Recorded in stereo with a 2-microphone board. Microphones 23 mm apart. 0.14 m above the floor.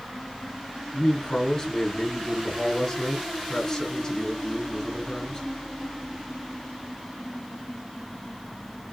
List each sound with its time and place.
0.9 s a man speaking: 20° left (ahead or behind), 1.5 m